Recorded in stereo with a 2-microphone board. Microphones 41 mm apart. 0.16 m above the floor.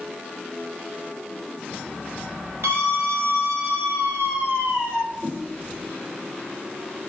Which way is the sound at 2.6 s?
70° right (ahead or behind).